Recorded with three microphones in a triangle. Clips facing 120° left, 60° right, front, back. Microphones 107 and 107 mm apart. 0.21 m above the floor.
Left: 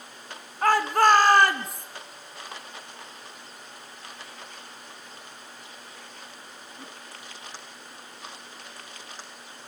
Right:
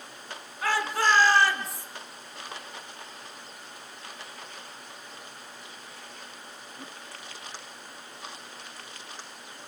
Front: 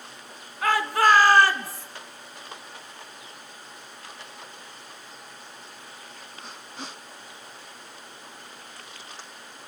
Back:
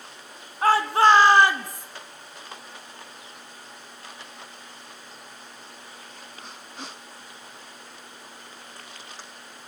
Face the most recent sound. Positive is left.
turn(degrees=105)